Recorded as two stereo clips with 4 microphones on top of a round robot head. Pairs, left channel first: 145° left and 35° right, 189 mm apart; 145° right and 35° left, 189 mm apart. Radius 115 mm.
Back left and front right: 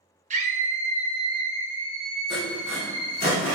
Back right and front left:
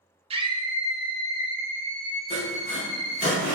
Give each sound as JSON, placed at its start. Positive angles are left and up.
{"t": 0.3, "sound": "a scream", "azimuth_deg": -10, "distance_m": 0.8}
{"t": 2.3, "sound": "sawing", "azimuth_deg": 175, "distance_m": 1.4}